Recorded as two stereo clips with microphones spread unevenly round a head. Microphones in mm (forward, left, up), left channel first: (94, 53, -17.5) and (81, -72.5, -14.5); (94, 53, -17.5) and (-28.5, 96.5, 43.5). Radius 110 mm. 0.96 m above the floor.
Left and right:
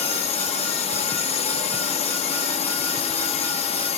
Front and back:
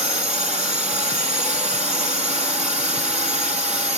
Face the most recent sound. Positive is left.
turn(degrees=110)